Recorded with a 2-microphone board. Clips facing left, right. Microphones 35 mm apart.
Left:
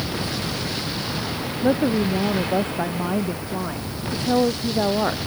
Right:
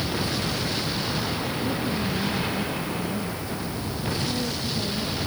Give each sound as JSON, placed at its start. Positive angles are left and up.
{"t": 1.6, "sound": "a woman speaking", "side_deg": 70}